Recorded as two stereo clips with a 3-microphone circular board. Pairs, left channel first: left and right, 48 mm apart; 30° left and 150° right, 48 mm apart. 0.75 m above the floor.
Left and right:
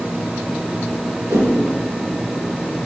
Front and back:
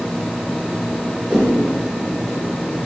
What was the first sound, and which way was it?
A whoosh, 80° right.